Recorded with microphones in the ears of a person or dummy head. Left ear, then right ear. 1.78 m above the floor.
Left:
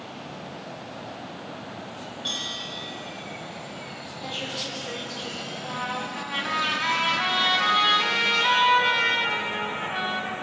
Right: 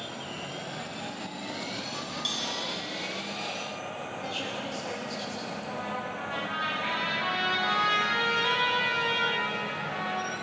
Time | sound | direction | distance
2.2 | a bell | 60° right (ahead or behind) | 2.5 m
4.2 | a woman speaking | centre (ahead or behind) | 4 m
5.6 | a trumpet | 20° left (ahead or behind) | 3 m